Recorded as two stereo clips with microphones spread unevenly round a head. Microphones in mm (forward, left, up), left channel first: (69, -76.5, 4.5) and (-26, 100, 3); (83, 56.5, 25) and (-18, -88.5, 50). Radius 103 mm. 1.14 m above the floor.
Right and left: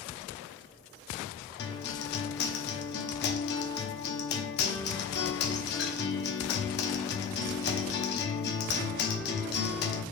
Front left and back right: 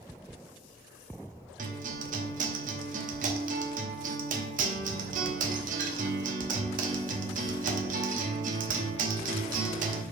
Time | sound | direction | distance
1.6 | a guitar | 95° right | 0.9 m